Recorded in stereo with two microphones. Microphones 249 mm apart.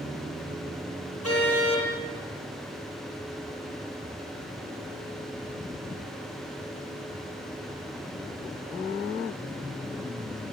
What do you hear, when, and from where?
1.2 s a car horn: 75° left (ahead or behind), 7.5 m